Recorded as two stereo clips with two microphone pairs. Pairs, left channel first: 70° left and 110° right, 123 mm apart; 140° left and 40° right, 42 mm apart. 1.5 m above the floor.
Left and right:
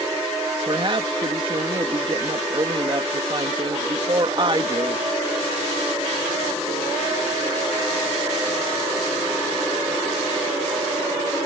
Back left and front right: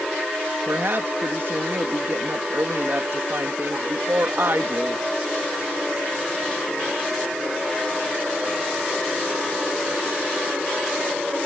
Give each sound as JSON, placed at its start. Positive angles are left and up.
{"t": 0.7, "sound": "a woman speaking", "azimuth_deg": -60}